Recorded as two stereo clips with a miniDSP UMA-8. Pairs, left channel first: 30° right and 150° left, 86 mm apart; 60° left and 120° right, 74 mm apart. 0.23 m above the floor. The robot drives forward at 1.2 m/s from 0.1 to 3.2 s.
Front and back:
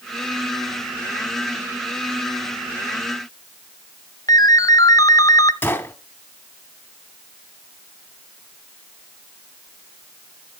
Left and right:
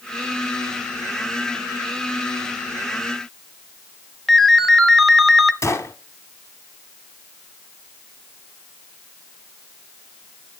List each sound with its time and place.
4.3 s a ringtone: 25° right, 0.7 m
5.6 s a gunshot: 30° left, 0.9 m